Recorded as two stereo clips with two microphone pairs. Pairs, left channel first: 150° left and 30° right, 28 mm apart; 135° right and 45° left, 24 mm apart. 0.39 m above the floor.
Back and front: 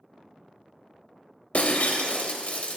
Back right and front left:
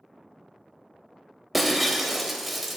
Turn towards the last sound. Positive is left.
turn(degrees=130)